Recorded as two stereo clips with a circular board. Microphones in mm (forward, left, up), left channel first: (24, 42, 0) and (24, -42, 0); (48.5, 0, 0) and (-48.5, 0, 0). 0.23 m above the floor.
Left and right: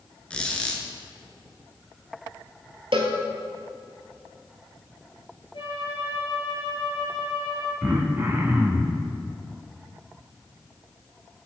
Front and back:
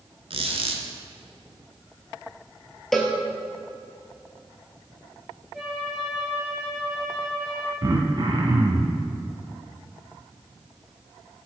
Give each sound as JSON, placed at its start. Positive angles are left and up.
{"t": 0.3, "sound": "a squeak", "azimuth_deg": 170, "distance_m": 0.9}
{"t": 2.9, "sound": "a cowbell", "azimuth_deg": -85, "distance_m": 0.9}
{"t": 5.5, "sound": "a flute", "azimuth_deg": 95, "distance_m": 2.0}
{"t": 7.8, "sound": "throat clearing", "azimuth_deg": -145, "distance_m": 0.8}